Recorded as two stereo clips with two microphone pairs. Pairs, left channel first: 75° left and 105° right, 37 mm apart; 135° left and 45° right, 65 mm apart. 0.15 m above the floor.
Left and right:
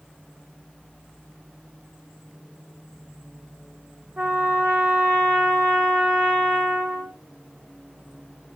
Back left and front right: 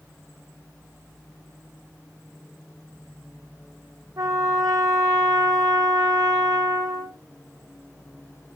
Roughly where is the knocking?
No knocking in this recording.